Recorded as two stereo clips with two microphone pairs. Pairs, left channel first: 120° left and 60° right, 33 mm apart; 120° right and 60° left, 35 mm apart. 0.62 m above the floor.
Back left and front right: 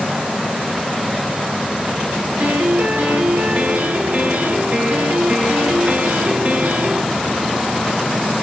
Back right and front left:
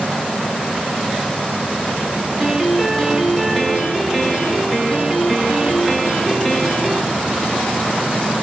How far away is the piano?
About 0.8 m.